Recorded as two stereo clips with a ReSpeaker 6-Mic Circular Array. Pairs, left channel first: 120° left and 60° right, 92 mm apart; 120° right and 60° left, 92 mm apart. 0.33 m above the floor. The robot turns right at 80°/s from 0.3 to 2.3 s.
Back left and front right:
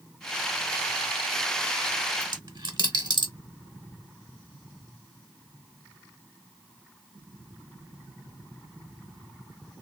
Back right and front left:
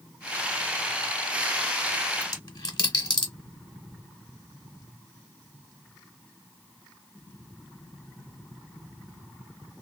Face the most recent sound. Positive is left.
turn(degrees=-90)